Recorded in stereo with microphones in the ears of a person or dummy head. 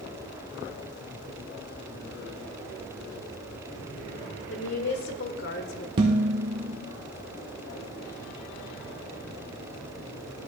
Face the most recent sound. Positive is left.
turn(degrees=-25)  # may be behind; listen again after turning